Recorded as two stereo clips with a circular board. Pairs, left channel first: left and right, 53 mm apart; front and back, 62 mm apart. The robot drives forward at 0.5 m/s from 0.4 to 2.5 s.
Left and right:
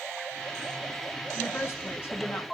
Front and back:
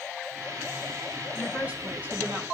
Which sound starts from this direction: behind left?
A woman speaking, at 1.3 s.